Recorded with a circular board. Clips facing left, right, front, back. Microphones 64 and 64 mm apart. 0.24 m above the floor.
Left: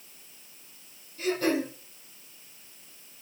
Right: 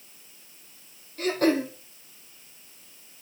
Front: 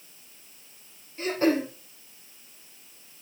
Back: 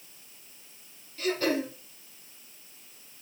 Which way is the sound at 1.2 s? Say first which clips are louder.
Right 3 dB, front 4 dB; 60° right.